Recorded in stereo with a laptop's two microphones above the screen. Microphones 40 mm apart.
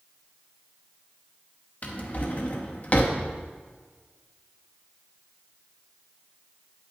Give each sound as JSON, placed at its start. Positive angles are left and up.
{"t": 1.8, "sound": "a drawer", "side_deg": 40, "distance_m": 0.8}